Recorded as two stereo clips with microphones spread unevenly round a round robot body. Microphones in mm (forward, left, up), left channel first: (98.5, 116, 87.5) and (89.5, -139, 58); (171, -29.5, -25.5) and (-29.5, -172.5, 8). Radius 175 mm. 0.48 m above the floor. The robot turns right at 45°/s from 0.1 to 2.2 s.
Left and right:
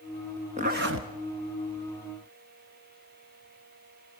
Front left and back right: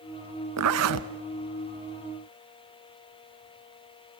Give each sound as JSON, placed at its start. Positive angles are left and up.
{"t": 0.6, "sound": "a zipper", "azimuth_deg": -165, "distance_m": 1.0}